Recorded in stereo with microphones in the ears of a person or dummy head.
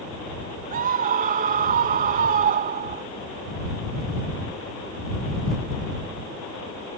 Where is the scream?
45° right (ahead or behind).